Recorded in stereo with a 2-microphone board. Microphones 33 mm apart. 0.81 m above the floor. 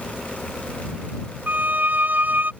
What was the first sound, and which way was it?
A violin, 70° right (ahead or behind).